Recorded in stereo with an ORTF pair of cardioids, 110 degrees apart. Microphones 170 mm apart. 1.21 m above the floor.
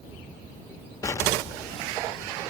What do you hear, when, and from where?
1.0 s an explosion: 20° left, 1.3 m